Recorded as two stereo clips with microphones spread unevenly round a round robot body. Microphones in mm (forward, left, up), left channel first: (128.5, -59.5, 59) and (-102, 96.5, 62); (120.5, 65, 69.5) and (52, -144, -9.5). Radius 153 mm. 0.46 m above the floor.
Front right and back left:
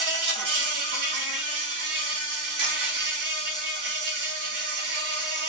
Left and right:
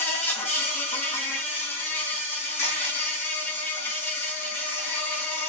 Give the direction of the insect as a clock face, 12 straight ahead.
7 o'clock.